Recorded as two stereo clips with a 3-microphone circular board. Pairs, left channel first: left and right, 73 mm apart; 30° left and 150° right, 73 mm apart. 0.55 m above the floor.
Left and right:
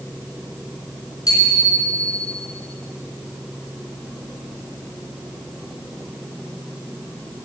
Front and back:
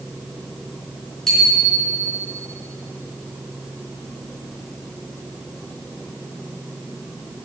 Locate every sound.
1.3 s a bicycle bell: 115° left, 5 m